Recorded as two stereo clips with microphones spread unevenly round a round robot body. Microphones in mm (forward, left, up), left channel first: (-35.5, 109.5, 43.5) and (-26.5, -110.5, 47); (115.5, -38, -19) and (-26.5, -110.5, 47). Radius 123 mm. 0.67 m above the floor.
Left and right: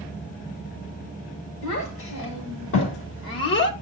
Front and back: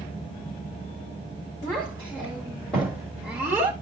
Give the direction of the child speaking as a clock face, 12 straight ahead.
9 o'clock.